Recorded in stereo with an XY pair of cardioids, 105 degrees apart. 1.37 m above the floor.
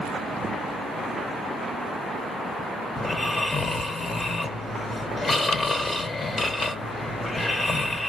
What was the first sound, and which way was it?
Snoring, 30° left.